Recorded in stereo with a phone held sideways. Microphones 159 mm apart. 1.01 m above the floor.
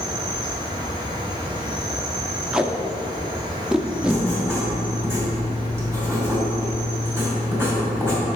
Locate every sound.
0.0 s an insect: 25° right (ahead or behind), 1.1 m
2.5 s tape being pulled: 5° right (ahead or behind), 0.6 m
4.0 s writing: 15° right (ahead or behind), 2.5 m